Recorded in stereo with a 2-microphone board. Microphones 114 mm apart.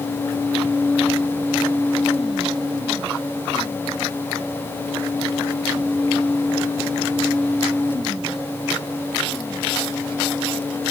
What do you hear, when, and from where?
Only background noise.